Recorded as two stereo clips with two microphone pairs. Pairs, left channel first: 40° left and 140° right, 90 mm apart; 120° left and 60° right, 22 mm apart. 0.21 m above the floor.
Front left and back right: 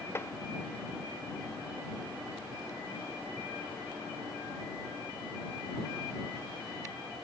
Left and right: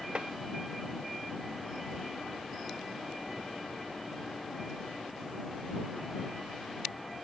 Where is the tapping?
20° right.